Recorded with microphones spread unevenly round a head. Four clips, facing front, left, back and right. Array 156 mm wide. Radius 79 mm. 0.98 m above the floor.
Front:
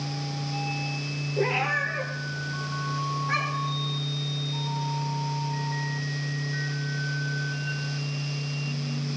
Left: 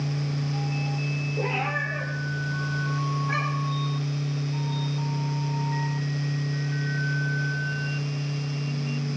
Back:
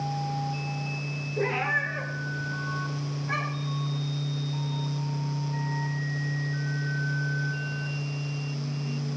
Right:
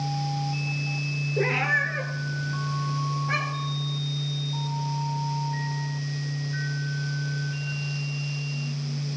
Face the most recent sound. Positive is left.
turn(degrees=-100)